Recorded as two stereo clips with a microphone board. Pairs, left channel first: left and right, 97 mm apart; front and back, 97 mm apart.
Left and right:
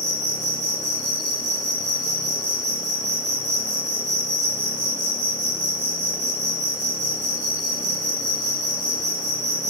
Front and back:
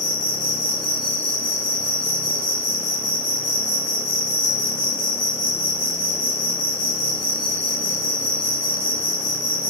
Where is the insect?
20° left, 1.2 m.